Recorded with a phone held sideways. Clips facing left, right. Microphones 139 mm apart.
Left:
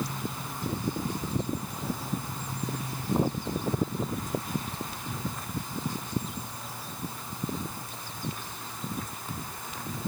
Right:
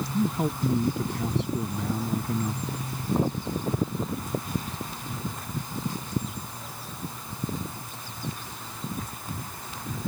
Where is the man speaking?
80° right.